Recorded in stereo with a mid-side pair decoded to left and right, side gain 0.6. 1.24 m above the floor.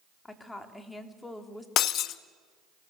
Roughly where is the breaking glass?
Ahead left.